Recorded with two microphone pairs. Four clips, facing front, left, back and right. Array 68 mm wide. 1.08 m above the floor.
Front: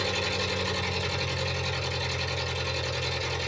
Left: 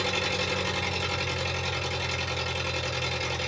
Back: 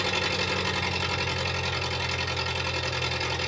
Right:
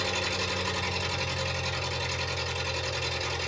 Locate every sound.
0.0 s an engine running: 155° left, 1.5 m